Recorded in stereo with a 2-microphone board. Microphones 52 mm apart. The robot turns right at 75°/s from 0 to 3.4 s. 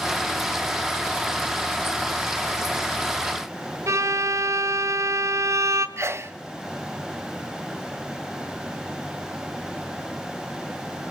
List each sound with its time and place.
3.9 s a violin: 70° right (ahead or behind), 1.0 m
6.0 s a sneeze: 60° right (ahead or behind), 1.1 m